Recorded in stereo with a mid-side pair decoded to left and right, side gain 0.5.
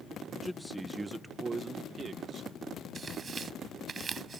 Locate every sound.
0.3 s a man speaking: 15° left; by 2.5 s 50° right
3.0 s tearing paper: 45° right